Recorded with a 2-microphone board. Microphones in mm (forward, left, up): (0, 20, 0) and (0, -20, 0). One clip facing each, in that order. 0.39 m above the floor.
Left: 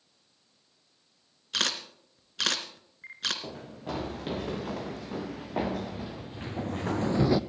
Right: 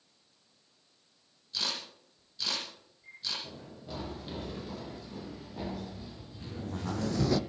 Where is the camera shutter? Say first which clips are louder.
Left 6 dB; 65° left (ahead or behind), 2.5 m.